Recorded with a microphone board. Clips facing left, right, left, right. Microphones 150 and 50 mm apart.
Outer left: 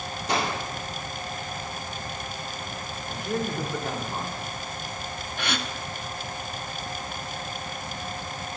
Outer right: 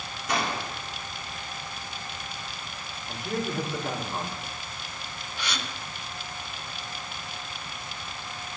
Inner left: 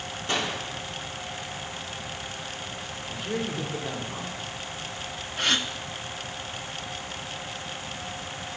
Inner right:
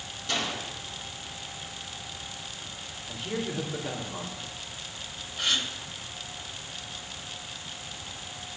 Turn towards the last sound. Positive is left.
turn(degrees=55)  # may be behind; listen again after turning